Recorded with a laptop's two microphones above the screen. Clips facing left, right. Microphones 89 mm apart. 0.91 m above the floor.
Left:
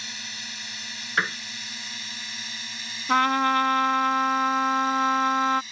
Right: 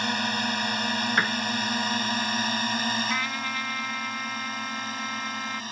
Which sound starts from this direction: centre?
A piano, at 1.2 s.